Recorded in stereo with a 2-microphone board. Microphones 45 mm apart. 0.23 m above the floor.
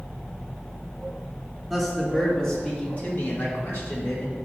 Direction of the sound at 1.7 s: Centre (ahead or behind).